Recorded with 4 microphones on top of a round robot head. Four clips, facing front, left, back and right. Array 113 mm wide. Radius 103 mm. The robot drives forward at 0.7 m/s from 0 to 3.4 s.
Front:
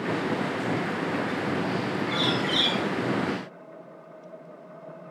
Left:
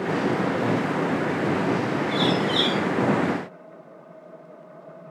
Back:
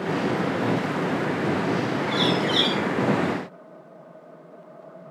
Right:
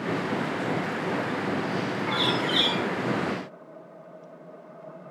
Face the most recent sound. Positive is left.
turn(degrees=-115)